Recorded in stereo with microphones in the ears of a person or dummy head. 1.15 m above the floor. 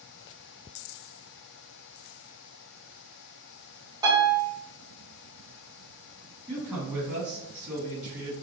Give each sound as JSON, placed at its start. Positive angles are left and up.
{"t": 4.0, "sound": "a piano", "side_deg": -20, "distance_m": 1.0}
{"t": 6.5, "sound": "a man speaking", "side_deg": -5, "distance_m": 1.5}